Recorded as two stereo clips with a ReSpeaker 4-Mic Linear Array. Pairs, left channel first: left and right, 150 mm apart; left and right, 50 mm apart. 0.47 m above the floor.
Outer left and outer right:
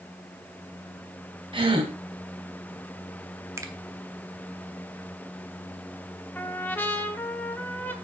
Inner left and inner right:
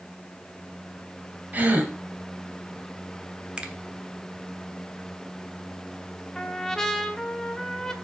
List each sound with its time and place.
1.5 s a gasp: 35° right (ahead or behind), 1.5 m
3.6 s a finger snap: 20° right (ahead or behind), 1.1 m
6.3 s a trumpet: 15° left (ahead or behind), 0.8 m